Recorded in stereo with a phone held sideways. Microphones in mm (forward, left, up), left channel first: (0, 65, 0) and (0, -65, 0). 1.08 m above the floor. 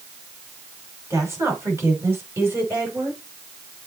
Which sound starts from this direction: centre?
A woman speaking, at 1.1 s.